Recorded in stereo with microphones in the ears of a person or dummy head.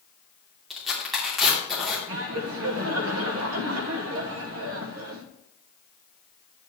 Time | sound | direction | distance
0.7 | tearing paper | 5° left (ahead or behind) | 2.5 m
2.1 | laughter | 70° right (ahead or behind) | 1.0 m